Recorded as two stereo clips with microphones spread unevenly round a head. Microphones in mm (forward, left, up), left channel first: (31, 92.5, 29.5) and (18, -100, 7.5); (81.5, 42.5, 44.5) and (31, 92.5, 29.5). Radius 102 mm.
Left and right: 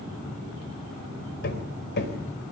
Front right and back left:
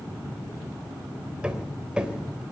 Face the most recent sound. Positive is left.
turn(degrees=55)